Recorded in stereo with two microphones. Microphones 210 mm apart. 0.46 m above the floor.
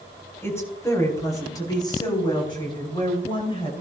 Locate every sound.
0.4 s a woman speaking: 15° left (ahead or behind), 4.5 m; by 3.8 s 25° left (ahead or behind), 6 m